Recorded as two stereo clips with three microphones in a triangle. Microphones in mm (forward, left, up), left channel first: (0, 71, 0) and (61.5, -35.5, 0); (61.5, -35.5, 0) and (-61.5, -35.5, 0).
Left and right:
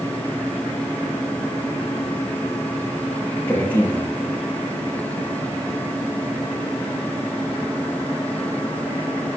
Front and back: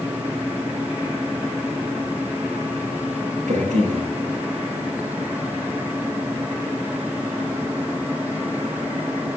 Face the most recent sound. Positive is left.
turn(degrees=-165)